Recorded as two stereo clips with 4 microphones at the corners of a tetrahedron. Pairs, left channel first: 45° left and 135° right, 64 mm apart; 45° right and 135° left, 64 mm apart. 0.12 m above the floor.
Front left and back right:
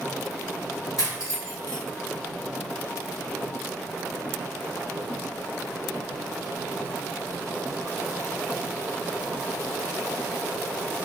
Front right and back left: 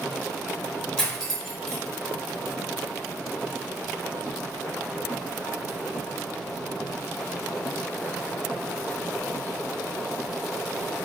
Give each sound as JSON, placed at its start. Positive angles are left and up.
{"t": 1.0, "sound": "cutlery clinking", "azimuth_deg": 35, "distance_m": 1.5}